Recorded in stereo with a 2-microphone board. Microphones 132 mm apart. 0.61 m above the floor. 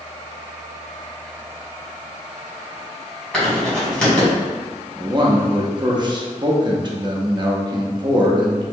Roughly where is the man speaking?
Right.